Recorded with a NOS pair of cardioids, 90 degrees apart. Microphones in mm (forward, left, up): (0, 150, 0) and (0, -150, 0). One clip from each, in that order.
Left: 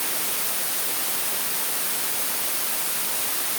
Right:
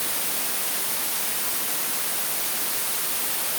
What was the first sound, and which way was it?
Only background noise.